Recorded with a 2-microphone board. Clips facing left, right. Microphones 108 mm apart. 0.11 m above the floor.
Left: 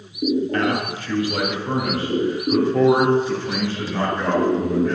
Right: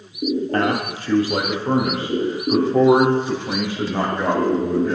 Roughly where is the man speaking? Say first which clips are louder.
Right 1 dB; right.